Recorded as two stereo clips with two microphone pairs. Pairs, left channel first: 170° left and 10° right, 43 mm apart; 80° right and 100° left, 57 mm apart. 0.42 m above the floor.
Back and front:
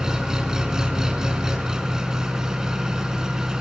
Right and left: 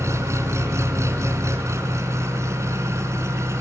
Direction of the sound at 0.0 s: 65° left.